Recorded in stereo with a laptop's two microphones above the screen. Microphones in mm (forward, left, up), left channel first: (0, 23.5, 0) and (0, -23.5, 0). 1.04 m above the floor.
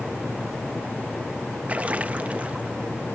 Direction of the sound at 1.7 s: 30° right (ahead or behind).